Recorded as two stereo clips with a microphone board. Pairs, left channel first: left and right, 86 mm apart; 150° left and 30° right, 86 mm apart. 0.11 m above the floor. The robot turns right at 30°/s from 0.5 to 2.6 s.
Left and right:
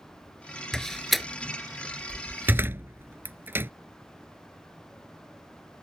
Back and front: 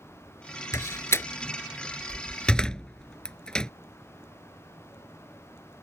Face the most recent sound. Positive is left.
turn(degrees=-135)